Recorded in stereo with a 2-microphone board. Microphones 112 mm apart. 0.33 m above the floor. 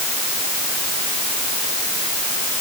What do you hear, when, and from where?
Only background noise.